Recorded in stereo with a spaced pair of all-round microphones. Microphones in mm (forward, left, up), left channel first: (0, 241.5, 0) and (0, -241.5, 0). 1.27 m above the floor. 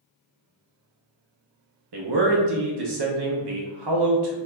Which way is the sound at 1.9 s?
55° right (ahead or behind).